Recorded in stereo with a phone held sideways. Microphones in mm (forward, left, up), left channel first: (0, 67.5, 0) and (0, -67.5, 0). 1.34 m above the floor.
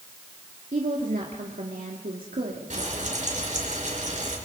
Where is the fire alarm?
No fire alarm in this recording.